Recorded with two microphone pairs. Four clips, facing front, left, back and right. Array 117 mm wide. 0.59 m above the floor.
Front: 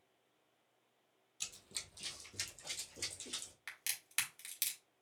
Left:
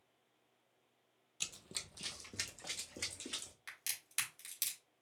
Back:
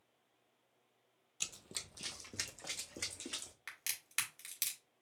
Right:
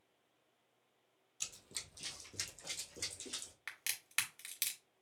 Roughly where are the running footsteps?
Behind left.